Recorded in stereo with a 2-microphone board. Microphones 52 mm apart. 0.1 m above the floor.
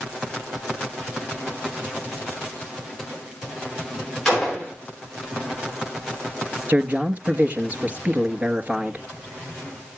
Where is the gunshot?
10° left (ahead or behind), 8.5 m.